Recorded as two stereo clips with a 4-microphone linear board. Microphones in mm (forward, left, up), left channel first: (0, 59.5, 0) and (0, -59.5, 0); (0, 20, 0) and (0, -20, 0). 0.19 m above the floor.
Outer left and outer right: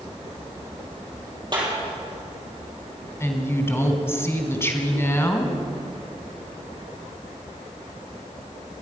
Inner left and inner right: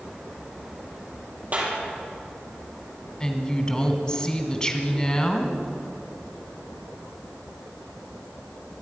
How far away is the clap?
About 5 m.